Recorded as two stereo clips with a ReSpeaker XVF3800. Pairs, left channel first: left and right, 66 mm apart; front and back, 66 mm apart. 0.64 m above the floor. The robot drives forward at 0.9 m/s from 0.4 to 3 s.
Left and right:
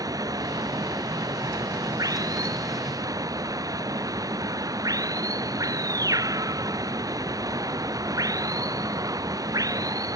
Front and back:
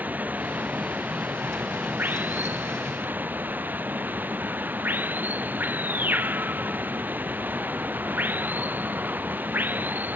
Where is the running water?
115° right; by 10.2 s 120° right.